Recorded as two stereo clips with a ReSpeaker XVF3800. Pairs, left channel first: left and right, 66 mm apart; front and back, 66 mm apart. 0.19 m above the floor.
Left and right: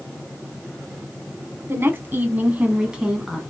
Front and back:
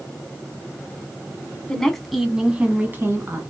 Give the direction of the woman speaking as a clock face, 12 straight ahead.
2 o'clock.